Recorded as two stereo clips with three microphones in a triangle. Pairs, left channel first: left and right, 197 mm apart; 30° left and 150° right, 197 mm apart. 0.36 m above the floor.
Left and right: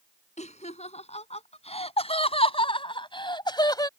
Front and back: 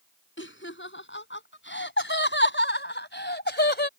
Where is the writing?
I don't hear writing.